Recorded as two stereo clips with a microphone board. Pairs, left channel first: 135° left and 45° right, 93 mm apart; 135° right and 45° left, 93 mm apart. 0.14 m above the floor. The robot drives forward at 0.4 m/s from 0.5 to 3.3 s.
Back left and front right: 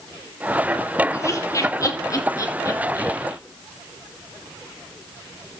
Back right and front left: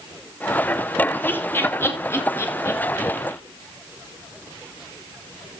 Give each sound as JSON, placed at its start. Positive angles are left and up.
{"t": 1.1, "sound": "laughter", "azimuth_deg": 165, "distance_m": 1.6}